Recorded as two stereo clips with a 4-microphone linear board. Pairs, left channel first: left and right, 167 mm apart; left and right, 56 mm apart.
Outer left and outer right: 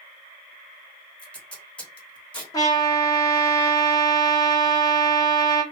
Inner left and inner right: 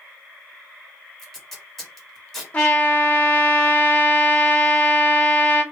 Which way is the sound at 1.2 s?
5° left (ahead or behind).